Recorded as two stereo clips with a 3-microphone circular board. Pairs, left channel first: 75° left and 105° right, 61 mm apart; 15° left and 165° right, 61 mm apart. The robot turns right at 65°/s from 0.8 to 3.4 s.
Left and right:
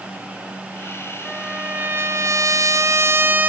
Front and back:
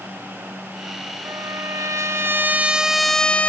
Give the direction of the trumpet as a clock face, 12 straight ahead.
6 o'clock.